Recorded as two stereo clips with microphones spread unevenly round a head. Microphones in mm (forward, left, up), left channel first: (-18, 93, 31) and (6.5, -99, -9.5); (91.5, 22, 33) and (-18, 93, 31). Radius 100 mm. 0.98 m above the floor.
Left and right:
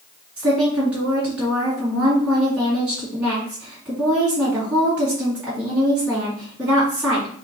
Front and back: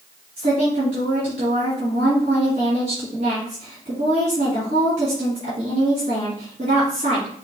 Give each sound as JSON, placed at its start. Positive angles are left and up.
{"t": 0.4, "sound": "a woman speaking", "azimuth_deg": -165, "distance_m": 2.5}